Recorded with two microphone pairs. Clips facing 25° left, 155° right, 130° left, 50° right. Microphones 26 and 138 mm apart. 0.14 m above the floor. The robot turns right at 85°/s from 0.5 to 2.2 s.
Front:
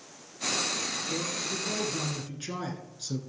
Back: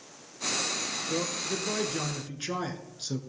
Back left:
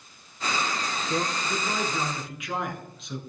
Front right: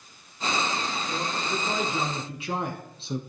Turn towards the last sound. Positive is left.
turn(degrees=-90)